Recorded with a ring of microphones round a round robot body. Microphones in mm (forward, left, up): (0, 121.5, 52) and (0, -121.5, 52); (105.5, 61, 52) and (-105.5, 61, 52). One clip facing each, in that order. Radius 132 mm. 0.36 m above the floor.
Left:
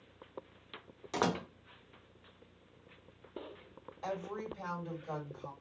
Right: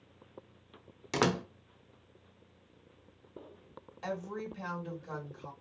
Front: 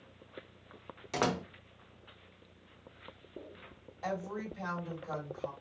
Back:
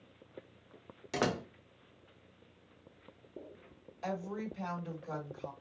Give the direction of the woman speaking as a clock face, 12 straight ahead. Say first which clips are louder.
Right 1 dB, even; 4 o'clock.